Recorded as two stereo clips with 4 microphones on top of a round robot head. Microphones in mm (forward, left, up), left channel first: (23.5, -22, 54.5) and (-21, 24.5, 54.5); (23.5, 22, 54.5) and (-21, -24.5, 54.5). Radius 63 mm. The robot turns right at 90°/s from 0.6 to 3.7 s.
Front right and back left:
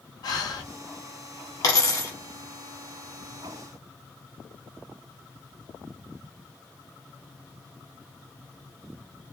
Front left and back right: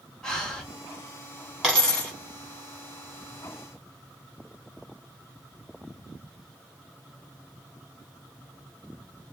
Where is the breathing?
35° right, 0.9 m; by 0.7 s 30° right, 0.9 m.